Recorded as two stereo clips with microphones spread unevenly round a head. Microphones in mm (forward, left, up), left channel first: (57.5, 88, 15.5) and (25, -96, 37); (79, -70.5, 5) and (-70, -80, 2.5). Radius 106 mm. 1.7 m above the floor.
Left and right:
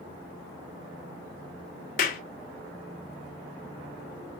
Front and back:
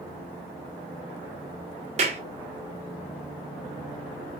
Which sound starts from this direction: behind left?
A clap, at 2.0 s.